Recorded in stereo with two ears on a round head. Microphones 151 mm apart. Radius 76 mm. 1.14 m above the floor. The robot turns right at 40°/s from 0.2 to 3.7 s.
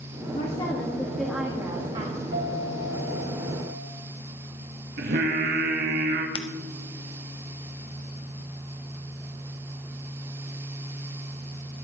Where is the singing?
60° right (ahead or behind), 1.8 m.